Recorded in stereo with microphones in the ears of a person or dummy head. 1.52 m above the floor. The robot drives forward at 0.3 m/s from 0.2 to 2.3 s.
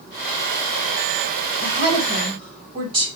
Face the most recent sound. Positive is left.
turn(degrees=-25)  # may be behind; listen again after turning